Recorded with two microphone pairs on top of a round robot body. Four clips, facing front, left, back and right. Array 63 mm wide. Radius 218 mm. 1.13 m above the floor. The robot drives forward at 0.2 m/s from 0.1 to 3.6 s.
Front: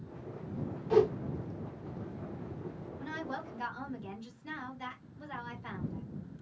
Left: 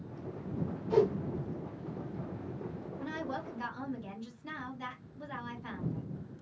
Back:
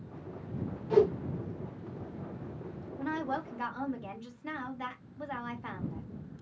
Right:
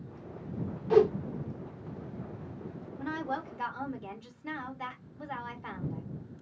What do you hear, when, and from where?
0.9 s a whoosh: 85° right, 0.8 m
3.0 s a woman speaking: 140° right, 1.5 m; by 6.0 s 145° right, 1.6 m